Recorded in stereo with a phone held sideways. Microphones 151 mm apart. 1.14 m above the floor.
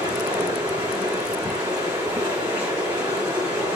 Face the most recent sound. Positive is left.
turn(degrees=-20)  # may be behind; listen again after turning